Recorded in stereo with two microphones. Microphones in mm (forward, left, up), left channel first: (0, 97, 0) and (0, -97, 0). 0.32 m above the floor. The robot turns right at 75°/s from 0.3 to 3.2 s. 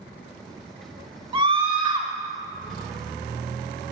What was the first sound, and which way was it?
A scream, 25° right (ahead or behind).